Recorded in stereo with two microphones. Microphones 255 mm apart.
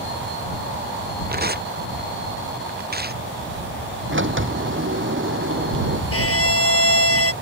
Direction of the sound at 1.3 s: 40° right (ahead or behind).